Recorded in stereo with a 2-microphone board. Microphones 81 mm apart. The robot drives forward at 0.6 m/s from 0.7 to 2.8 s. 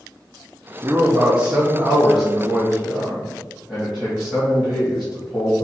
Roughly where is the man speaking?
Right.